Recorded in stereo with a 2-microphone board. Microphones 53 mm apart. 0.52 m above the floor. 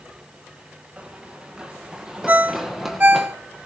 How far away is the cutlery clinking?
I don't hear cutlery clinking.